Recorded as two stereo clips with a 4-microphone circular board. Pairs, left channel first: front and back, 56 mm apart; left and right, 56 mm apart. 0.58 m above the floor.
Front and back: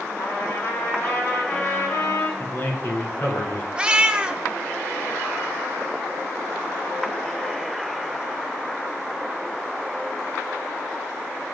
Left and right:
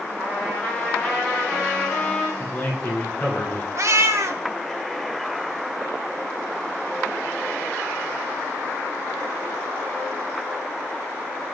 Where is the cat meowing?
110° right, 0.6 m.